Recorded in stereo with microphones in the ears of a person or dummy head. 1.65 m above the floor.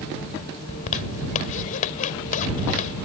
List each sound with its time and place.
0.7 s a zipper: 40° left (ahead or behind)